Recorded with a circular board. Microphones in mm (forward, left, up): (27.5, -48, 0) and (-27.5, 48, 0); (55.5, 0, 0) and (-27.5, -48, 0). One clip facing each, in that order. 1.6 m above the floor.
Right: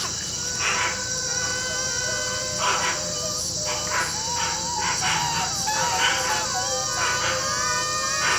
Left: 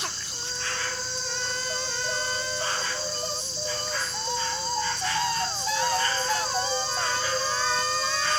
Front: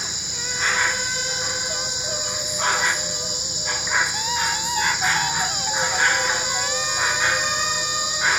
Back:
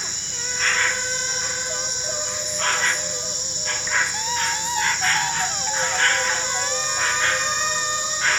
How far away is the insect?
About 1.0 m.